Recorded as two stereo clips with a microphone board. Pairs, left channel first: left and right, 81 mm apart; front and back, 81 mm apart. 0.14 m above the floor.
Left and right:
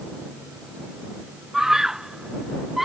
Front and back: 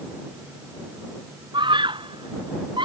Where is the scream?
175° right; by 2.9 s straight behind.